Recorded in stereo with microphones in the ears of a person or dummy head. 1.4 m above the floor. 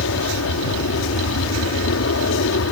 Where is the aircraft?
70° left (ahead or behind).